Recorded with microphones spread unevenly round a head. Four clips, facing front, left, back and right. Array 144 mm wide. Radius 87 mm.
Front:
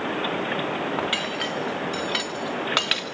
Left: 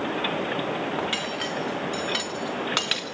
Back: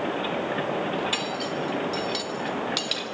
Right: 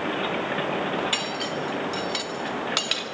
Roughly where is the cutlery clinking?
Ahead.